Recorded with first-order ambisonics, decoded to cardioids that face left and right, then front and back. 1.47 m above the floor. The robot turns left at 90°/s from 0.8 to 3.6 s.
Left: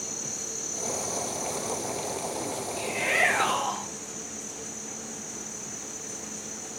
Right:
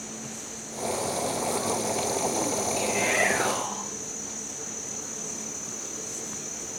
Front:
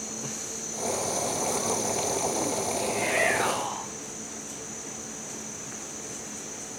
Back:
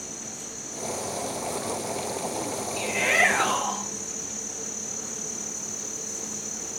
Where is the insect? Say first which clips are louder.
Left 4 dB, front 2 dB; 85° left, 2 m; by 6.8 s 165° right, 2 m.